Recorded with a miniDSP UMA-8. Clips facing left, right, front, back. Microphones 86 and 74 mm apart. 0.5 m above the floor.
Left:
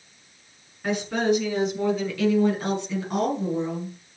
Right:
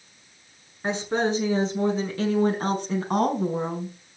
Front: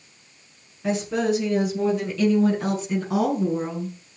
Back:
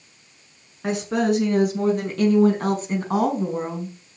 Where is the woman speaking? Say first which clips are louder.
Left 1 dB, back 1 dB; 155° right, 6.5 m; by 4.0 s 125° right, 4.5 m.